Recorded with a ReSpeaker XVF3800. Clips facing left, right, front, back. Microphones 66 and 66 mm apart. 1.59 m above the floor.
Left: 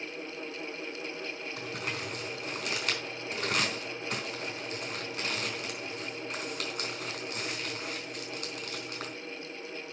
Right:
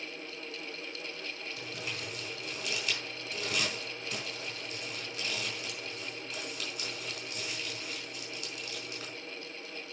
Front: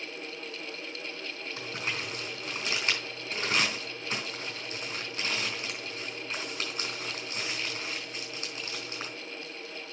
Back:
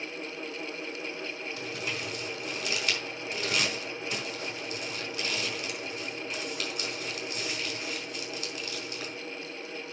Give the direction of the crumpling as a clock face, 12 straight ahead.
10 o'clock.